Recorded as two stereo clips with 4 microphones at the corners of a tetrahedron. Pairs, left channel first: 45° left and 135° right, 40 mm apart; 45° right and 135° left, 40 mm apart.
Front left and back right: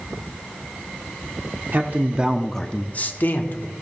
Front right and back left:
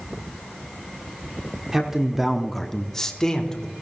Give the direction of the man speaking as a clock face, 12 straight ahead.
5 o'clock.